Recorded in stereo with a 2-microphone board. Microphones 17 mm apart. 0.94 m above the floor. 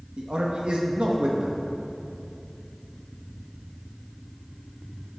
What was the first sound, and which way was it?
A man speaking, 70° right (ahead or behind).